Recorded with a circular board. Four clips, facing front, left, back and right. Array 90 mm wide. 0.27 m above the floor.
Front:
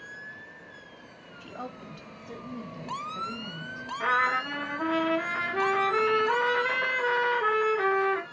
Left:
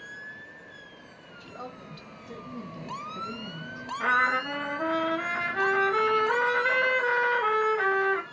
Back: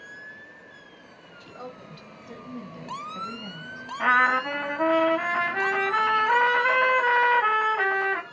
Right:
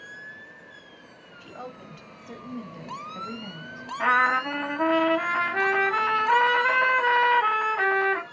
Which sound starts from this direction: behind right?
A trumpet, at 4.0 s.